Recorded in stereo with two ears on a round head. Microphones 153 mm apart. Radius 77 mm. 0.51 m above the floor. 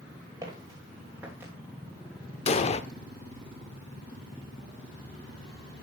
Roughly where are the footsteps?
Centre.